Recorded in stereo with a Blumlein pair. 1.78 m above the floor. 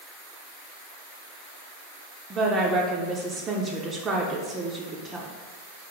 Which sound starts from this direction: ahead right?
A woman speaking, at 2.3 s.